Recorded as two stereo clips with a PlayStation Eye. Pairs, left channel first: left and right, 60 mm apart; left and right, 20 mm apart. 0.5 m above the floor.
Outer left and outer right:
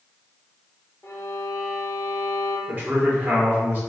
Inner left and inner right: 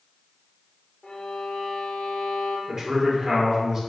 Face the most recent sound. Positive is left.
turn(degrees=-30)  # may be behind; listen again after turning